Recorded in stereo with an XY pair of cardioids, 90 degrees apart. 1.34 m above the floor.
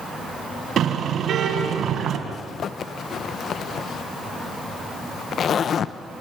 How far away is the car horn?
About 4 m.